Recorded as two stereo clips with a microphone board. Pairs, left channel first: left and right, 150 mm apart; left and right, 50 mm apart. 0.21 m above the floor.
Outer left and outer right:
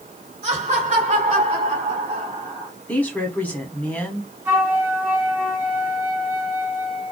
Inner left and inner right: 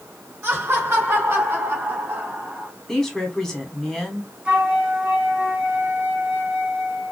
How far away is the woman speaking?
About 1.2 m.